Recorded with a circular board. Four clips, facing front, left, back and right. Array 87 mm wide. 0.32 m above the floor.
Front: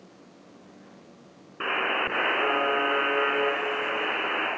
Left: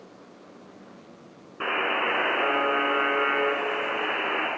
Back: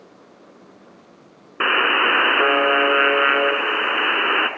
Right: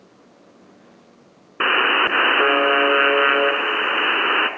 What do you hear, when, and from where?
1.6 s a buzzer: 130° right, 0.8 m